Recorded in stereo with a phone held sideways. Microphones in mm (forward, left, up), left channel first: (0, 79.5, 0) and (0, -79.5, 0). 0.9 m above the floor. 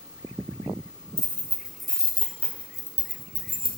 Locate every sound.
1.2 s keys jangling: 15° right (ahead or behind), 1.6 m; by 3.7 s 35° left (ahead or behind), 1.9 m